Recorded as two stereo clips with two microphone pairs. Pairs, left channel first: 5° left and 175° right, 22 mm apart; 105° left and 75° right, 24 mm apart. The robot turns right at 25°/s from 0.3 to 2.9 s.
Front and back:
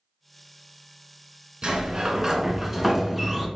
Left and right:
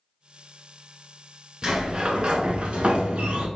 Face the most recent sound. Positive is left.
turn(degrees=-100)